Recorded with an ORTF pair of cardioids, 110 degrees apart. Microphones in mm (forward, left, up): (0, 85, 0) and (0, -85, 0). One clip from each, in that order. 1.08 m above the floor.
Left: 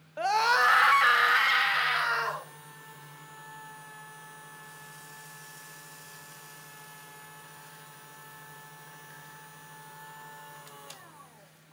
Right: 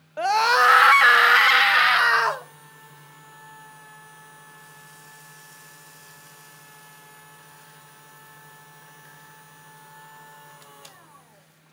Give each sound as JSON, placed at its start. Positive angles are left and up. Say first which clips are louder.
{"t": 0.2, "sound": "a scream", "louder": "right 6 dB", "azimuth_deg": -25, "distance_m": 1.4}